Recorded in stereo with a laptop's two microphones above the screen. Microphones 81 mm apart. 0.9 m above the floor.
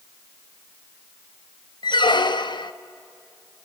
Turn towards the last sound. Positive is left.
turn(degrees=70)  # may be behind; listen again after turning